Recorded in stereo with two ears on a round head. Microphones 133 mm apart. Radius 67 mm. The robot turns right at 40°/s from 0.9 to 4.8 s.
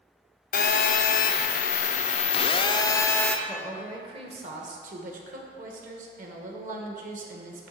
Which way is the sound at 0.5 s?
75° left.